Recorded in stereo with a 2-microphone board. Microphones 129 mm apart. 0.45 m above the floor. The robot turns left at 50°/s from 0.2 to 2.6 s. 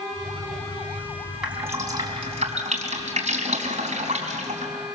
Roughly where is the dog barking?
No dog barking in this recording.